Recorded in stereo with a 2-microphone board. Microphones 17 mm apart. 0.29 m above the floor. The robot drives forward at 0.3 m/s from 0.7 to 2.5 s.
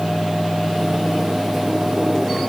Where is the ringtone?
No ringtone in this recording.